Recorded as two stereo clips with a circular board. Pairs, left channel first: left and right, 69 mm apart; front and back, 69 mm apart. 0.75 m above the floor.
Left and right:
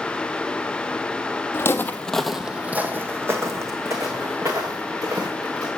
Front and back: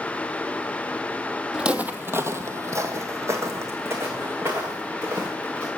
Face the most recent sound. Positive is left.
turn(degrees=-125)